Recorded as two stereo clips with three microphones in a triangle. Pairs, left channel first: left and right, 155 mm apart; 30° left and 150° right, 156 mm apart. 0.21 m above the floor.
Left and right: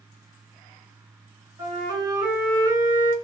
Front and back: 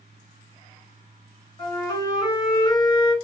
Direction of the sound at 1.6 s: 25° right.